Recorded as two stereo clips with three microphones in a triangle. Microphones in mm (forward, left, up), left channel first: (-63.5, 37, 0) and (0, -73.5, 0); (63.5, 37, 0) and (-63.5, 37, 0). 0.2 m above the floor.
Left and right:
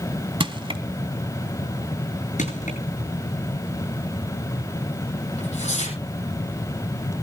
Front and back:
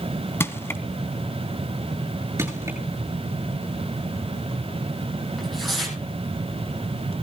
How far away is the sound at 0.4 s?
About 1.1 m.